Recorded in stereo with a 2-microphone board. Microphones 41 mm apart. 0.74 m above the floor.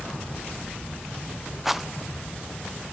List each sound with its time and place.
1.6 s a rattle: 5° right (ahead or behind), 0.7 m